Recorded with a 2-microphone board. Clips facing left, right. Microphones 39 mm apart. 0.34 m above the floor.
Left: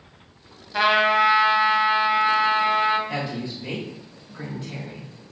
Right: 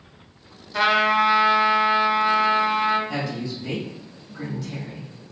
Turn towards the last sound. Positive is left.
turn(degrees=25)  # may be behind; listen again after turning